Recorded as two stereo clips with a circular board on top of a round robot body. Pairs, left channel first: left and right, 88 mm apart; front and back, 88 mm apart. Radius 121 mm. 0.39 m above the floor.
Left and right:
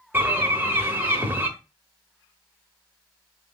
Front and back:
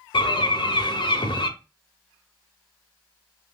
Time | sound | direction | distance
0.1 | a bird | 25° right | 0.9 m